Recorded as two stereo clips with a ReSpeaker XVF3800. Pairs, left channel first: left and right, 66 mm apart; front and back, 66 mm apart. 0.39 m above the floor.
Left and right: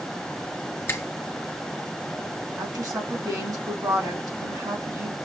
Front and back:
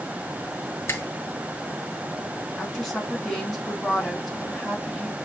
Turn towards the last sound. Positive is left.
turn(degrees=-80)